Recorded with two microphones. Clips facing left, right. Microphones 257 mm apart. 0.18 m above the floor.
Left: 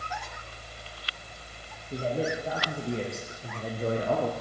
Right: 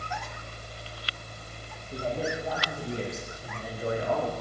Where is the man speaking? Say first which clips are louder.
Left 2 dB; 25° left (ahead or behind), 4 m; by 4.3 s 35° left (ahead or behind), 2 m.